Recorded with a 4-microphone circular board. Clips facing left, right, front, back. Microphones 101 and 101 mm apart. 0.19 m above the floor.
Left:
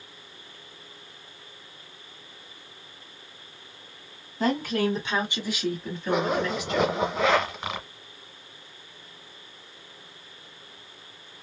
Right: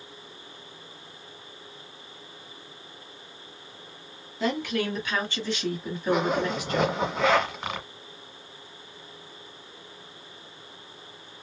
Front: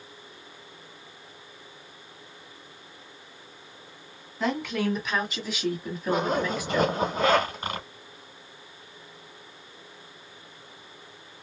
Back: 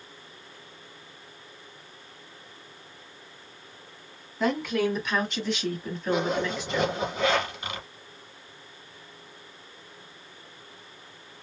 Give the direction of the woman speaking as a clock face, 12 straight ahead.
9 o'clock.